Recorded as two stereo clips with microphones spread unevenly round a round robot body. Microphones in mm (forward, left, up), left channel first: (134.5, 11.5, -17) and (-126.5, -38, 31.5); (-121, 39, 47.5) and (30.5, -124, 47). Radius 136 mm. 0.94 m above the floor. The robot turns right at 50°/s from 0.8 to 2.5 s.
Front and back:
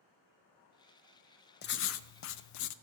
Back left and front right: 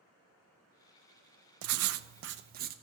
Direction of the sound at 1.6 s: 40° right.